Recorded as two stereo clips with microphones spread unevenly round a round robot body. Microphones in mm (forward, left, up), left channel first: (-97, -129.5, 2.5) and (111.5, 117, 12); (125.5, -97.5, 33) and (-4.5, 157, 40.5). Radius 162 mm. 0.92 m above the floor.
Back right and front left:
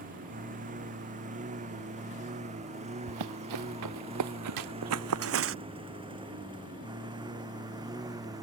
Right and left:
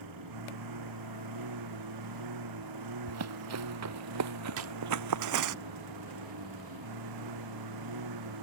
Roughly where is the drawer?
Left.